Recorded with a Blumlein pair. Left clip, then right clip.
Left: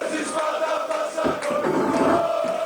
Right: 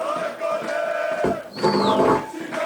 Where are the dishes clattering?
30° right, 2 m.